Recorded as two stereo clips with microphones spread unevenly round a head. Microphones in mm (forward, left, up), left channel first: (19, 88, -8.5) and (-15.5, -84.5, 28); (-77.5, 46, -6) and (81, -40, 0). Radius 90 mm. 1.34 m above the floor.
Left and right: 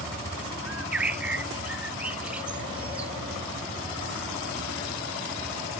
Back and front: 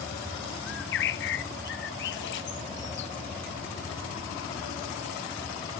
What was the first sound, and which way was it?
A bird, straight behind.